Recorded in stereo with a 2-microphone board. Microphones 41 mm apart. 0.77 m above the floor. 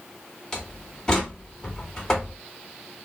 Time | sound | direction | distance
0.5 | a door slam | 15° left (ahead or behind) | 1.8 m